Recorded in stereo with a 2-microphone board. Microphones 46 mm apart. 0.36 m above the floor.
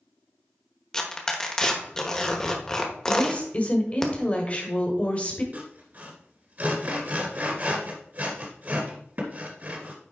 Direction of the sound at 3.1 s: 25° left (ahead or behind).